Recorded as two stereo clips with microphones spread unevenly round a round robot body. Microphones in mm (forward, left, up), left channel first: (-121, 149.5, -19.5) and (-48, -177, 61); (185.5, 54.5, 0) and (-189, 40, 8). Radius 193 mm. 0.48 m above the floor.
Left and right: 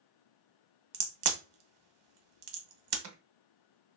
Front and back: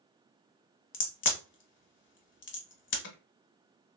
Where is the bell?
I don't hear a bell.